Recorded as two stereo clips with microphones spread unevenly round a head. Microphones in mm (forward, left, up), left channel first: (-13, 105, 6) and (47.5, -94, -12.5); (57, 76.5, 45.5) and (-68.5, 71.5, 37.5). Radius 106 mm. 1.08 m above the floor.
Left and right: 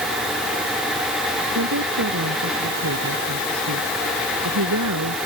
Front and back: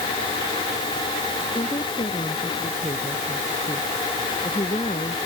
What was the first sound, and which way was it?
A woman speaking, 60° right.